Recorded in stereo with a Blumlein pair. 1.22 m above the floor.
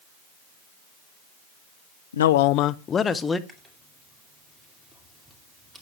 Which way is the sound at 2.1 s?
65° left.